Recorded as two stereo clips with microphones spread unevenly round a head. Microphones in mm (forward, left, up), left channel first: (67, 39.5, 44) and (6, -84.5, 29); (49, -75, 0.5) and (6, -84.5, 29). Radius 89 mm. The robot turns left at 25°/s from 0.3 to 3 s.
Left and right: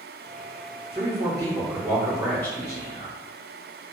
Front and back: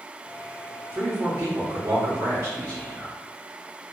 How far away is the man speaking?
About 0.9 m.